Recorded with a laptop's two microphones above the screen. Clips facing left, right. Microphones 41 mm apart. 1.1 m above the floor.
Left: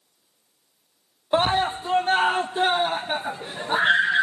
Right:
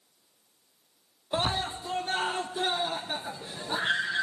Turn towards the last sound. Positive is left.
turn(degrees=35)  # may be behind; listen again after turning